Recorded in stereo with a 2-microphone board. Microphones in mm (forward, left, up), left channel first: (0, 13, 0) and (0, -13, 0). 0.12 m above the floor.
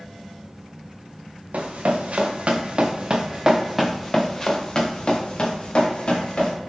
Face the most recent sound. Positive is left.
turn(degrees=50)  # may be behind; listen again after turning